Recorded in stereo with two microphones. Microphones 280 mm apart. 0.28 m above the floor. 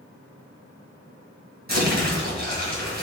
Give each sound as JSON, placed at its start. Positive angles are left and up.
{"t": 1.7, "sound": "crumpling", "side_deg": -35, "distance_m": 1.8}